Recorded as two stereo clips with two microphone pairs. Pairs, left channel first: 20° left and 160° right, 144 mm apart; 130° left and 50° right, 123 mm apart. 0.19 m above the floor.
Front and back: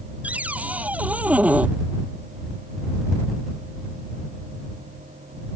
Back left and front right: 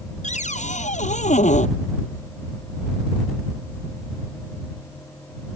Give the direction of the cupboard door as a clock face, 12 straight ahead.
8 o'clock.